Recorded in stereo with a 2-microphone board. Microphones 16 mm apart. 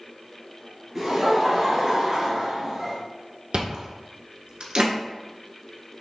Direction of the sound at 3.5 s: 70° right (ahead or behind).